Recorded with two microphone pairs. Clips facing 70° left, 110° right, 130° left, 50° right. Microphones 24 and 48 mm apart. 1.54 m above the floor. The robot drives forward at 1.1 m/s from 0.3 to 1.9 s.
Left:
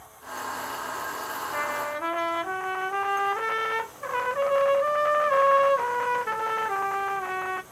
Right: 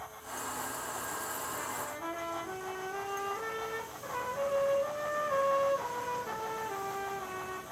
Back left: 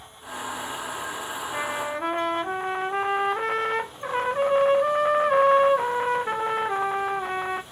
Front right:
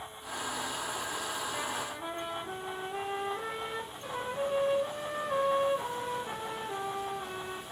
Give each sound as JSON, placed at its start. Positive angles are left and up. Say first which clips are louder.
{"t": 1.5, "sound": "a trumpet", "louder": "left 9 dB, back left 7 dB", "azimuth_deg": 80, "distance_m": 0.7}